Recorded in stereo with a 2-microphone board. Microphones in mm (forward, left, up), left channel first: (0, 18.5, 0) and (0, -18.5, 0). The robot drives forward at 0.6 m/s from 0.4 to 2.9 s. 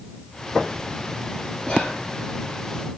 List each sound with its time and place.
1.6 s whispering: 20° left (ahead or behind), 1.5 m